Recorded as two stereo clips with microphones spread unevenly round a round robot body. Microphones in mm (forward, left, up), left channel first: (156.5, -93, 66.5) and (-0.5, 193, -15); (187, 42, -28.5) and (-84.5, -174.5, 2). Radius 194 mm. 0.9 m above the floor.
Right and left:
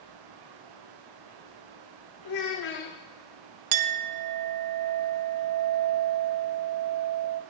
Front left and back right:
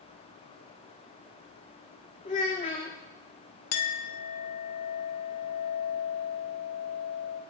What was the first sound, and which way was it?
A child speaking, 30° right.